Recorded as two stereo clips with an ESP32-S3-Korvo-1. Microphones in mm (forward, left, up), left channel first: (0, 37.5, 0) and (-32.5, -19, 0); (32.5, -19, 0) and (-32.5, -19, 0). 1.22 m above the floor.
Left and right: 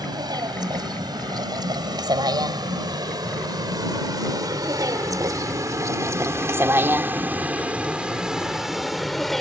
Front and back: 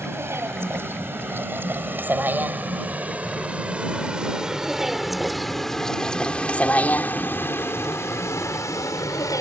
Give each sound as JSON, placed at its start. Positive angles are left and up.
{"t": 0.0, "sound": "a vehicle", "azimuth_deg": -130}